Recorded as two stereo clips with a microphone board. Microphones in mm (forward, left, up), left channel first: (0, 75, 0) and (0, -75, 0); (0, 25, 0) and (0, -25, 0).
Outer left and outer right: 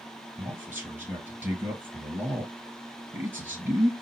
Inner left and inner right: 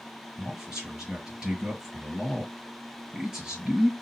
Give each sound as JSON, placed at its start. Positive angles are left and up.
{"t": 0.4, "sound": "a man speaking", "side_deg": -15, "distance_m": 2.5}